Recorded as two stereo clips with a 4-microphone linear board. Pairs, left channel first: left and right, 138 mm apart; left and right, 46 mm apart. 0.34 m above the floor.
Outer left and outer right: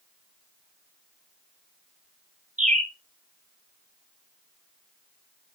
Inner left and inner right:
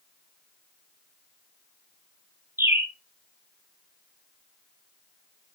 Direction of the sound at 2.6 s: 65° right (ahead or behind).